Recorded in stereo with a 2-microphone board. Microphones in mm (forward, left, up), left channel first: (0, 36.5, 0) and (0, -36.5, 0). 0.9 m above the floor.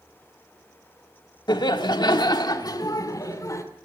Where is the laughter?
75° left (ahead or behind), 1.7 m; by 3.6 s 45° left (ahead or behind), 2.5 m.